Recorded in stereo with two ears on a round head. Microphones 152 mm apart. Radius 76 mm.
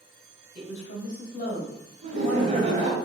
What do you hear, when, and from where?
0.6 s a woman speaking: 55° left (ahead or behind), 1.7 m; by 3.0 s 20° left (ahead or behind), 2 m
2.0 s laughter: 45° right (ahead or behind), 1.2 m